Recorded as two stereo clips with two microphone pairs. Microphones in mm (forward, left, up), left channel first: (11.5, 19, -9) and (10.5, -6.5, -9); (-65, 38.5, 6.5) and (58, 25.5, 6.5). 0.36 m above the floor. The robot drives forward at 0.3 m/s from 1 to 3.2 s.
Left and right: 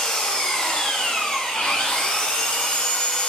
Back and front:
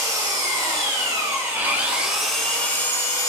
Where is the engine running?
50° left, 0.8 m; by 3.3 s 115° left, 0.7 m.